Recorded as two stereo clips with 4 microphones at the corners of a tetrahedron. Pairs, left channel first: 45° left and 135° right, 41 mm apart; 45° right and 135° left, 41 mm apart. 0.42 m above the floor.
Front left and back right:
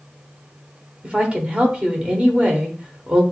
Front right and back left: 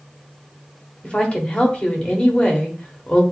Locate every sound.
1.0 s a woman speaking: 90° right, 1.2 m